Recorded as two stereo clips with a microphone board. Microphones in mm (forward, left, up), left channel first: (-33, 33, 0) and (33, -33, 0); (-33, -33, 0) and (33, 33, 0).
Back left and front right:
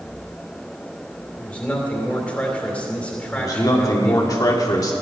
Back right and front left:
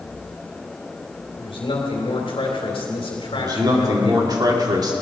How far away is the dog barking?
I don't hear a dog barking.